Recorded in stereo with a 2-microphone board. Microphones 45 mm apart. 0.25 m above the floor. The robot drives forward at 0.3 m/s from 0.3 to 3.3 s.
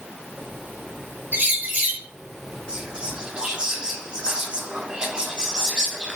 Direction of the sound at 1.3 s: 50° right (ahead or behind).